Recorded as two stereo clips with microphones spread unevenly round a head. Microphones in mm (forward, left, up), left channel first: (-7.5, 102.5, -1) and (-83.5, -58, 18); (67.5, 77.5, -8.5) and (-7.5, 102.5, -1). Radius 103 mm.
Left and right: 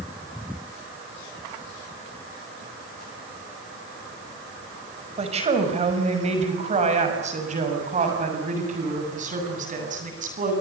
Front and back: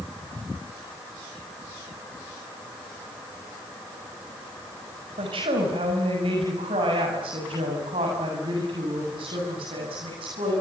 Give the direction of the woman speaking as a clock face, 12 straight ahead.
6 o'clock.